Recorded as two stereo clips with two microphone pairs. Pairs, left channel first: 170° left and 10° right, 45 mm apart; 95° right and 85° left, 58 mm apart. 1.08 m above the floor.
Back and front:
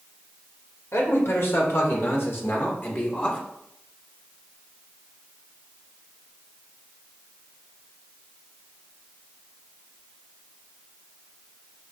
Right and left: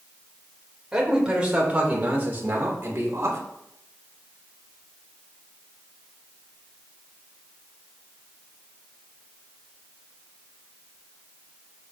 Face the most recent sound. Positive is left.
turn(degrees=120)